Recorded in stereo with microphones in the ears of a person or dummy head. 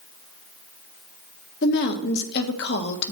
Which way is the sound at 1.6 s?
60° left (ahead or behind).